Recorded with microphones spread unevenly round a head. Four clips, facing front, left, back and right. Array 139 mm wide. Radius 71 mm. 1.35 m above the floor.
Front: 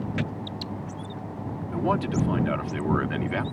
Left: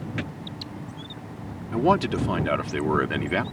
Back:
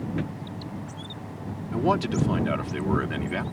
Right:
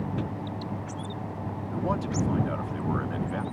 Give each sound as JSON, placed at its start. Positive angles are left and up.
{"t": 1.7, "sound": "a man speaking", "azimuth_deg": 110}